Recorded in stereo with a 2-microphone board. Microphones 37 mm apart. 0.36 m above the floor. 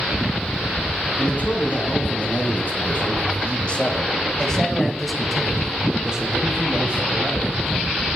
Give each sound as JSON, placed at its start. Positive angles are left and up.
{"t": 1.2, "sound": "a man speaking", "side_deg": 55, "distance_m": 2.5}